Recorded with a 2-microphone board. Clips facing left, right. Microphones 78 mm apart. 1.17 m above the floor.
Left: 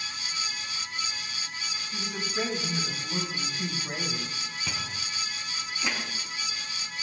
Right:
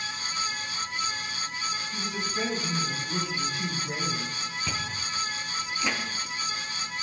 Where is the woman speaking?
15° left (ahead or behind), 6 m; by 4.4 s 40° left (ahead or behind), 4.5 m.